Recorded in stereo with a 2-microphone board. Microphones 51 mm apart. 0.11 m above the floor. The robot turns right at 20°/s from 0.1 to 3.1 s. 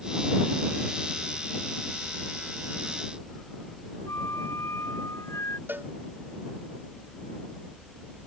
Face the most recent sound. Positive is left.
turn(degrees=-40)  # may be behind; listen again after turning